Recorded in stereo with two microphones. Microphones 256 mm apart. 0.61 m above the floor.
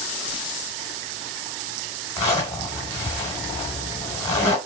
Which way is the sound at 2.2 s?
25° left (ahead or behind).